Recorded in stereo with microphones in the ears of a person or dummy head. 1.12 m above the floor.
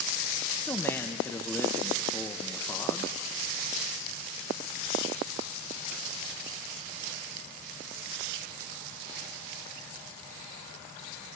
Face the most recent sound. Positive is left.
turn(degrees=10)  # may be behind; listen again after turning